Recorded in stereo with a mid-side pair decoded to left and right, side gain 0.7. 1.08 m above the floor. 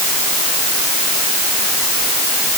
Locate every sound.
Only background noise.